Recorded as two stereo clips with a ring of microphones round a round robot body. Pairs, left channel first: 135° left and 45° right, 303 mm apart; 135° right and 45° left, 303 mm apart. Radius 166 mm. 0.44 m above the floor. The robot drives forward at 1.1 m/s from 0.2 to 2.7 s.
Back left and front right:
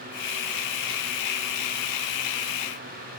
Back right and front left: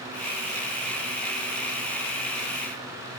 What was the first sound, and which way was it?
Only background noise.